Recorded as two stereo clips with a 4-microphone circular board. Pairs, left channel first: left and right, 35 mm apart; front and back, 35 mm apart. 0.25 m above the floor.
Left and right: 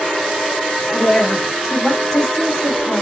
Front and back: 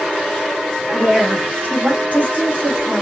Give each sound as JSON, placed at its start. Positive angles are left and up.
{"t": 0.9, "sound": "a woman speaking", "azimuth_deg": 160, "distance_m": 2.0}